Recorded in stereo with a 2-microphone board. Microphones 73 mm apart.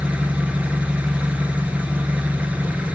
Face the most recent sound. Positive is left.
turn(degrees=-20)  # may be behind; listen again after turning